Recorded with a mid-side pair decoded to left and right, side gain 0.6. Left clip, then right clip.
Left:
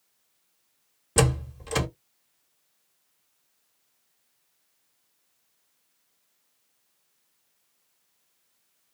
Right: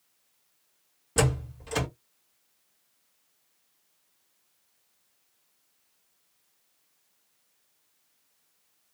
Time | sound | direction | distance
1.2 | a door slam | 35° left | 1.3 m